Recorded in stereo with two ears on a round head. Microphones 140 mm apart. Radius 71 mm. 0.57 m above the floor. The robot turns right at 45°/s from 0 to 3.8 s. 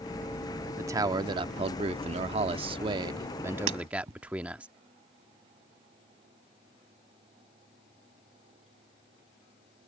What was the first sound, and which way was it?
A man speaking, 150° right.